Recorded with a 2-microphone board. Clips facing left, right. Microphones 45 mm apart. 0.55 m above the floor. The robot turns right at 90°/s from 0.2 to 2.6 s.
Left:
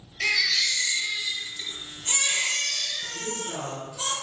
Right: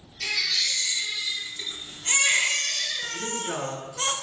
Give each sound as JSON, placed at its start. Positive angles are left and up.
{"t": 0.2, "sound": "a baby crying", "azimuth_deg": 70, "distance_m": 2.5}
{"t": 3.1, "sound": "a woman speaking", "side_deg": -75, "distance_m": 2.5}